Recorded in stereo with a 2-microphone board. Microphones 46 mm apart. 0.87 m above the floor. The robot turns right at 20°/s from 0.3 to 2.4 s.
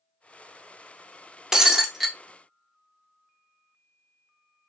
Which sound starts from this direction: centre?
Breaking glass, at 1.5 s.